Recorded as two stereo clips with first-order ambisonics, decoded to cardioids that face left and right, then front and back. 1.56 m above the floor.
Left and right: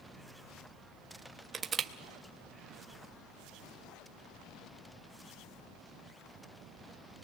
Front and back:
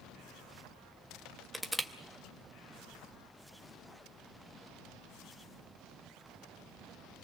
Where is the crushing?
85° right, 0.9 m.